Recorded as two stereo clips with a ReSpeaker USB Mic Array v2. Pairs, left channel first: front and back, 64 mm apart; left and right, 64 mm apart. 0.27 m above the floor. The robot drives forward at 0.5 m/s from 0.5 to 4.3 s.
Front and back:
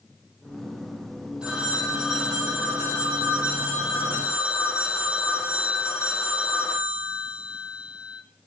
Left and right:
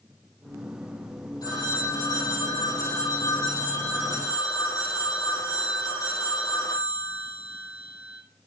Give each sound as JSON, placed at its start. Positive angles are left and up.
{"t": 1.4, "sound": "a phone ringing", "azimuth_deg": 105, "distance_m": 6.0}